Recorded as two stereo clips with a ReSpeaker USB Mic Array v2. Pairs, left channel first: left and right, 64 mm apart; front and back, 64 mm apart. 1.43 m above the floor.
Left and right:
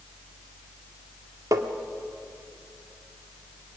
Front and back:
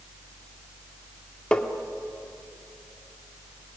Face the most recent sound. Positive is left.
turn(degrees=-75)